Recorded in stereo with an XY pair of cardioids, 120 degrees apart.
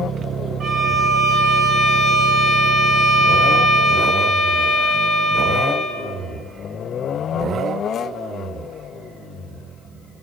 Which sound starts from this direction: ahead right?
A violin, at 0.6 s.